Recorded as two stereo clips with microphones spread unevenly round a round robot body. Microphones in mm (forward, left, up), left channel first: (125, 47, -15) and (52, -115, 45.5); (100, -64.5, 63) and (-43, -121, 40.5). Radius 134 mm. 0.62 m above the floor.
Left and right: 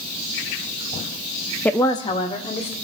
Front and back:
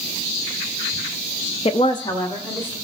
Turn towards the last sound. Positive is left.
turn(degrees=105)